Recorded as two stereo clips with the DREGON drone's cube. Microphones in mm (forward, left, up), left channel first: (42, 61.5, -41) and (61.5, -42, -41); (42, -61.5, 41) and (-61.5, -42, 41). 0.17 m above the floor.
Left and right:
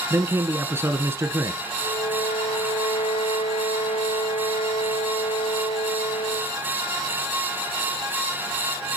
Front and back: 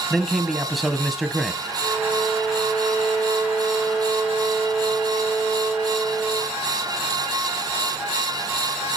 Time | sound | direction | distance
0.1 | a man speaking | 100° right | 1.3 m
1.8 | a violin | 85° left | 3.5 m